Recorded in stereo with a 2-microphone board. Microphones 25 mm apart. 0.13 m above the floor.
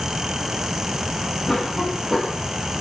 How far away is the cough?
About 6.5 m.